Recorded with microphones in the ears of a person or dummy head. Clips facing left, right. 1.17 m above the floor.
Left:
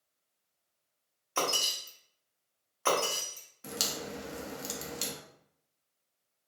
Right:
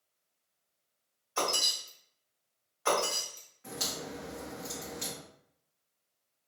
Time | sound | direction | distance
1.4 | breaking glass | 45° left (ahead or behind) | 1.1 m
3.6 | a crack | 50° left (ahead or behind) | 0.7 m